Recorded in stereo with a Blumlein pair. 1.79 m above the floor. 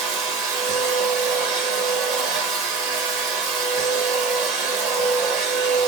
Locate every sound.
0.0 s a machine running: 40° right, 0.8 m